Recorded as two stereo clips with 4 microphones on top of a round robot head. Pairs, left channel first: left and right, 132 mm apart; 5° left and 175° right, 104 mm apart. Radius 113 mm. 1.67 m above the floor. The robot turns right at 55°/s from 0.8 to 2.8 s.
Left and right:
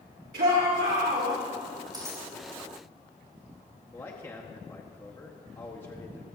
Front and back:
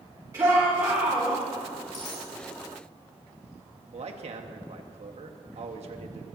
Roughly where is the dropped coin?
Ahead right.